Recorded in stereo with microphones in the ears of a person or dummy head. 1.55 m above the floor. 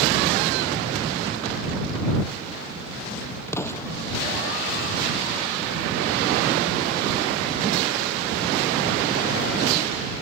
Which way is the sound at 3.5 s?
20° left (ahead or behind).